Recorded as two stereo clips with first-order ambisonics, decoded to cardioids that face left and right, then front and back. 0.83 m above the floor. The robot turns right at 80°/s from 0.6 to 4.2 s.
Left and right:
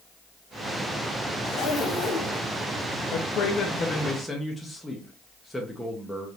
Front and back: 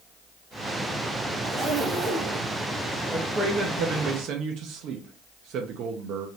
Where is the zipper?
90° left, 1.6 m; by 2.5 s 175° left, 1.6 m.